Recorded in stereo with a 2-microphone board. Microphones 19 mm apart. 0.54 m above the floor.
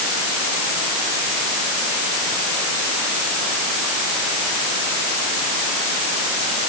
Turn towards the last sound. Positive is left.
No sound to turn to.